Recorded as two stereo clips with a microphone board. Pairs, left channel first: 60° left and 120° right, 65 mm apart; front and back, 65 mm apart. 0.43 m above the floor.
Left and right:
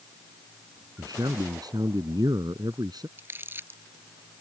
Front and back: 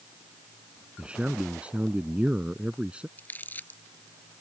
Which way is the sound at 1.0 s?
105° right.